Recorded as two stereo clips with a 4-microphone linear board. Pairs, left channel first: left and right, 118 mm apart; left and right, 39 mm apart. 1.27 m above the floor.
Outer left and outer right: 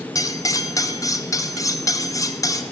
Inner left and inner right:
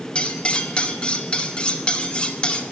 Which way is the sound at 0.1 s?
30° left (ahead or behind).